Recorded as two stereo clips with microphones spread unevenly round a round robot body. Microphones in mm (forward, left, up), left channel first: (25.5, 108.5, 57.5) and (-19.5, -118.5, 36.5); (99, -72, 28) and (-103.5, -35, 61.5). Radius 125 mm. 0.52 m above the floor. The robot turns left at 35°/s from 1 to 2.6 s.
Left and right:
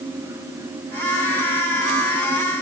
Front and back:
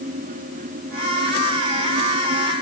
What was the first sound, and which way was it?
Only background noise.